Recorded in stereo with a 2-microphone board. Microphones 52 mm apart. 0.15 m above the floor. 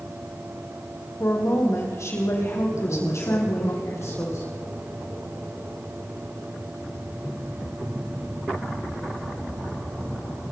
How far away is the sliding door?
I don't hear a sliding door.